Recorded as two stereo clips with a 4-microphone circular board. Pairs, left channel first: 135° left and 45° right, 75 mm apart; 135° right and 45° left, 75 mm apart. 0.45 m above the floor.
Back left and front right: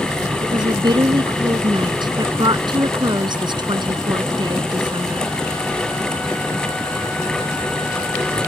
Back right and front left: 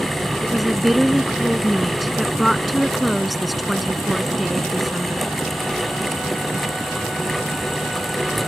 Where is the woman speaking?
45° right.